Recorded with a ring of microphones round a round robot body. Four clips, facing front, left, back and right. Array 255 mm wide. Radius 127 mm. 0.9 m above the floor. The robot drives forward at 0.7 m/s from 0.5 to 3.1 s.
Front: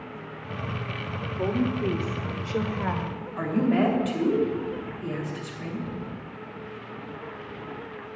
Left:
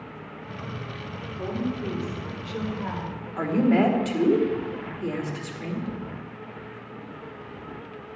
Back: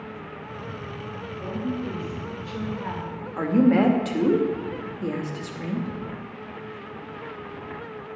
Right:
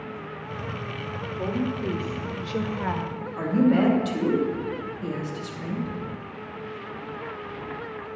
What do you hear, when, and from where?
1.4 s a woman speaking: 20° right, 1.8 m; by 3.3 s 60° right, 1.0 m
3.4 s a woman speaking: 170° left, 1.9 m